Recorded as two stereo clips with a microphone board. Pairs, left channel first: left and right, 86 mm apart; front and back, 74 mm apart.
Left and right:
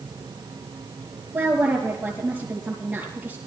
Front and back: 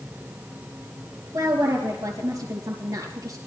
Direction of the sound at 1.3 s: 160° right.